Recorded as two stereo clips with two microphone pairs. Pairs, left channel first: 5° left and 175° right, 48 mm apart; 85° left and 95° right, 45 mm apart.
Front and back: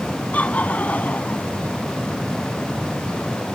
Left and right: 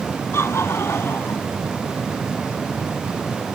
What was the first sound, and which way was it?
Laughter, 60° left.